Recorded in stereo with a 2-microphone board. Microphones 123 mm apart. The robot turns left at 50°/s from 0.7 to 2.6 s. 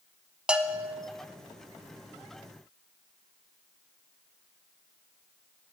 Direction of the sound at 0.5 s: 5° right (ahead or behind).